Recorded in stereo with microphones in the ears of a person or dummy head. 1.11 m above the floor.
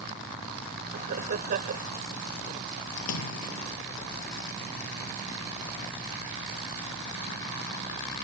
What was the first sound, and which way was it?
Laughter, 50° right (ahead or behind).